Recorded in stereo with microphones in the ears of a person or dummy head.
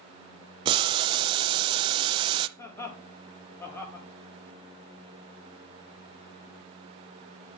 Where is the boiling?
20° right (ahead or behind), 0.5 m.